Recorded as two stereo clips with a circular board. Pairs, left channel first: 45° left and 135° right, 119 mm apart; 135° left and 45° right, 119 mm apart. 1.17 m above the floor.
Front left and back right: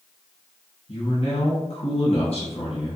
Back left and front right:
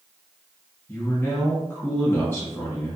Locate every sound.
0.9 s a man speaking: 65° left, 1.2 m